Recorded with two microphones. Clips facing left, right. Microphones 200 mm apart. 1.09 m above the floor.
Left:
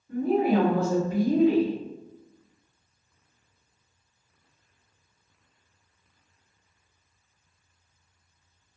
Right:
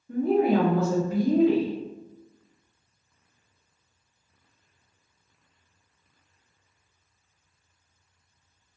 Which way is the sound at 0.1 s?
65° right (ahead or behind).